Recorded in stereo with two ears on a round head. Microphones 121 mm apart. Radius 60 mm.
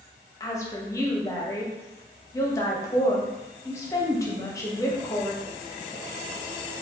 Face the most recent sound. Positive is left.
turn(degrees=25)  # may be behind; listen again after turning